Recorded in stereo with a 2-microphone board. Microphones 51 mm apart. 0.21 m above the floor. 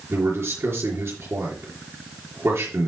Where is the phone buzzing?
I don't hear a phone buzzing.